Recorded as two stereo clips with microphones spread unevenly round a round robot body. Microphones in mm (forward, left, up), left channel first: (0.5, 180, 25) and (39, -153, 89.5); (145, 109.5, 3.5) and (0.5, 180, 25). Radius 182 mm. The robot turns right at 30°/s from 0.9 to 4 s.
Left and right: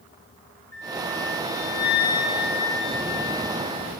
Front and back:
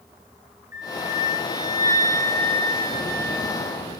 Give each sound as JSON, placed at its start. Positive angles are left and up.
{"t": 0.7, "sound": "a flute", "azimuth_deg": 80, "distance_m": 1.3}